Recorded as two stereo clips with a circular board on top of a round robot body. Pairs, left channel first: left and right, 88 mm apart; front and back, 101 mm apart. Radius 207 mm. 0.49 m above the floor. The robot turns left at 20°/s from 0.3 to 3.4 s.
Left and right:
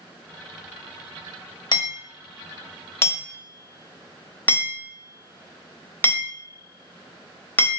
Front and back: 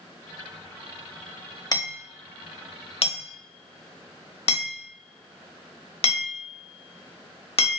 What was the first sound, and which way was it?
Hammering, 50° left.